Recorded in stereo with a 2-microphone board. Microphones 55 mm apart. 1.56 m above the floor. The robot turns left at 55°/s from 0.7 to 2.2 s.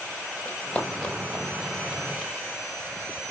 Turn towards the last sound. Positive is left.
turn(degrees=5)  # may be behind; listen again after turning